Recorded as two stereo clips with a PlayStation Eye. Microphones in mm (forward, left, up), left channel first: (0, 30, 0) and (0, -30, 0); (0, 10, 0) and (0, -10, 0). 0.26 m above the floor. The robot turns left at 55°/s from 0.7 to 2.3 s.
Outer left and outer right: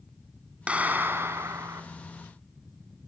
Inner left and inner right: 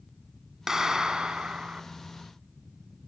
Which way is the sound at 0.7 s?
25° right.